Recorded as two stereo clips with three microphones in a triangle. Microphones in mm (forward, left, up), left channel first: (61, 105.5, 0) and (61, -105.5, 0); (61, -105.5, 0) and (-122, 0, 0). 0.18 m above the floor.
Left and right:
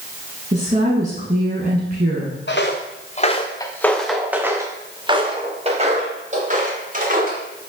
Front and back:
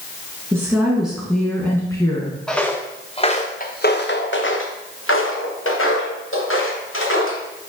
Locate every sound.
0.5 s a woman speaking: 135° right, 1.7 m; by 2.4 s 90° right, 1.5 m
2.5 s footsteps: 55° left, 1.2 m; by 7.4 s 40° right, 3.5 m